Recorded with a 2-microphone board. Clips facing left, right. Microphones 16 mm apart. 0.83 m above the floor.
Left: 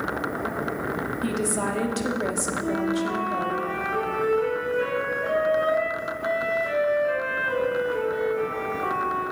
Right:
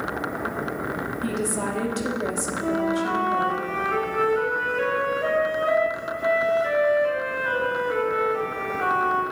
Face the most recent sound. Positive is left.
turn(degrees=-60)  # may be behind; listen again after turning